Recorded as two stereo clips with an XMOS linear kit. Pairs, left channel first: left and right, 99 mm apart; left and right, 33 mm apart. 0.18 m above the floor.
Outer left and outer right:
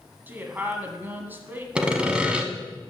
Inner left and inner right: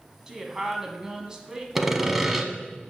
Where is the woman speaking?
20° right (ahead or behind), 1.0 m.